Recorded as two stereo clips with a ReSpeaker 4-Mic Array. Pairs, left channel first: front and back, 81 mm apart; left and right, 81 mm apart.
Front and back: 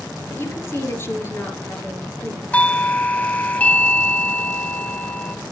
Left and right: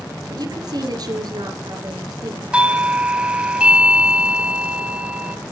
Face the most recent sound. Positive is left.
turn(degrees=-35)